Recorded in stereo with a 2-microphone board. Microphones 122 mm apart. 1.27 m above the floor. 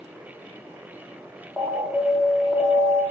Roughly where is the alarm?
Centre.